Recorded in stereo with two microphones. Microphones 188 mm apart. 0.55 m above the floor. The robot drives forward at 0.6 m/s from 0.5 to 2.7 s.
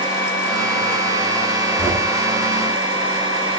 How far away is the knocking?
About 1.8 m.